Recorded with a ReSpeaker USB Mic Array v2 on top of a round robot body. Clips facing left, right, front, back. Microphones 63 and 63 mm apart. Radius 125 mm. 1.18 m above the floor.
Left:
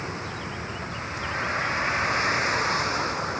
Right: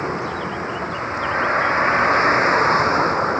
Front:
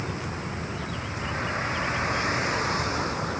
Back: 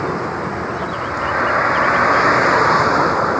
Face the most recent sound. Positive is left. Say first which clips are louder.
# right 9 dB, back 12 dB
turn(degrees=-145)